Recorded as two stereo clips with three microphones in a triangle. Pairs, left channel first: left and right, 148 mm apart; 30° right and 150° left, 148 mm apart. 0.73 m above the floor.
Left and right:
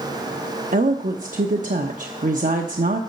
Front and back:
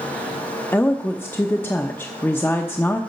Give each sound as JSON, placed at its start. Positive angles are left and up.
{"t": 0.7, "sound": "a woman speaking", "azimuth_deg": -105, "distance_m": 0.9}